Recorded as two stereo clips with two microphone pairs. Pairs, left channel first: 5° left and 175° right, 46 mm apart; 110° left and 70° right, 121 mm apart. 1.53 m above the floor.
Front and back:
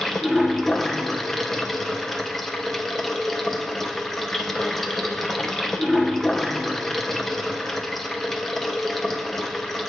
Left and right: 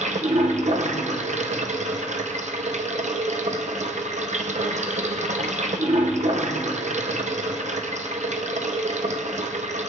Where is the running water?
80° right, 0.8 m.